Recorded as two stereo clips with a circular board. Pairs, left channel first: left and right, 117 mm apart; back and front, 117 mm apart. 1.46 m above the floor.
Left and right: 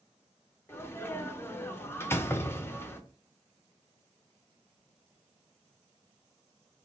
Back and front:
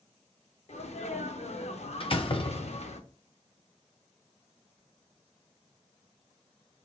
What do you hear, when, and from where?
0.7 s a sneeze: 160° left, 0.7 m
2.0 s a door slam: 155° left, 0.5 m